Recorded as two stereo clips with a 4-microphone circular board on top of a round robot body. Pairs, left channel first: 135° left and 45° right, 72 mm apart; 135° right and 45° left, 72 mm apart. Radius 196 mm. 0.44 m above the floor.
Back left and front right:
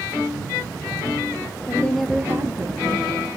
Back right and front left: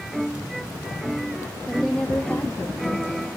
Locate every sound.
1.7 s a woman speaking: 130° left, 0.8 m; by 3.3 s 75° right, 1.7 m